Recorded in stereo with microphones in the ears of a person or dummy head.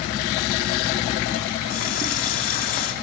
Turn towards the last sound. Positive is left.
turn(degrees=45)  # may be behind; listen again after turning